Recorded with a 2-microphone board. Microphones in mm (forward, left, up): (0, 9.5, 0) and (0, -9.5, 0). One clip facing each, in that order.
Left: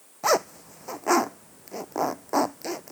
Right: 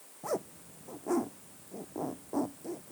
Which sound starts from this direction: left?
A zipper, at 0.2 s.